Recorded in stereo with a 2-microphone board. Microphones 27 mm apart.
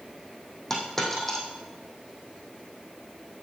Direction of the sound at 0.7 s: 10° left (ahead or behind).